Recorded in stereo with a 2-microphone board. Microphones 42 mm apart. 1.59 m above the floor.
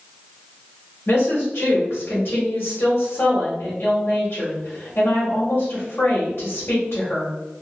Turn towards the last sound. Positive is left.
turn(degrees=70)  # may be behind; listen again after turning